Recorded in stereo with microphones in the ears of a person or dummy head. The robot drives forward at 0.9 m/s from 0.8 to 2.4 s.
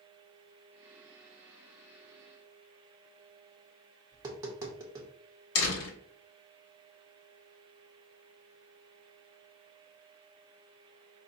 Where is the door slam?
75° left (ahead or behind), 1.5 m.